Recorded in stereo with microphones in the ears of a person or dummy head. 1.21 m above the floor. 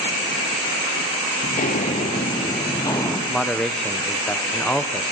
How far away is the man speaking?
About 0.6 m.